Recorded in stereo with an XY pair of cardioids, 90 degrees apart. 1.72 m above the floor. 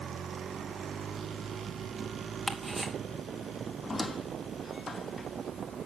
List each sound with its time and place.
2.5 s ticking: 15° right, 2.5 m
3.8 s a squeak: 30° left, 2.5 m